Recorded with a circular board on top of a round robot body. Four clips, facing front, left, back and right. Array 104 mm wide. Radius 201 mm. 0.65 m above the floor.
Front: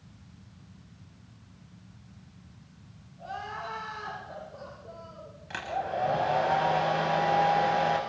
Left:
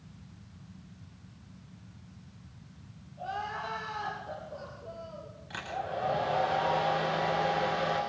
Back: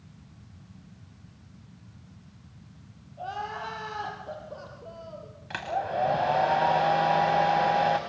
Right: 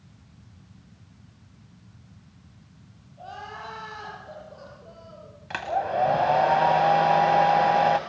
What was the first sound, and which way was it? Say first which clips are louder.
Crying: left 3 dB, back 3 dB; straight behind.